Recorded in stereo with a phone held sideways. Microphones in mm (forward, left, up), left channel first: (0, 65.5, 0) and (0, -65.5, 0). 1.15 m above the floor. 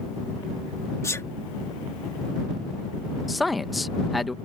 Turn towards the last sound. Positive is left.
turn(degrees=0)  # may be behind; listen again after turning